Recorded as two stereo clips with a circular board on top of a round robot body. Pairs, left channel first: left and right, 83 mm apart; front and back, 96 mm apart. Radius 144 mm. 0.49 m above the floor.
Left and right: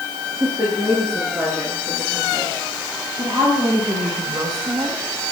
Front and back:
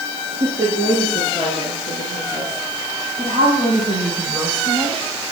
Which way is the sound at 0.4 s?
165° right.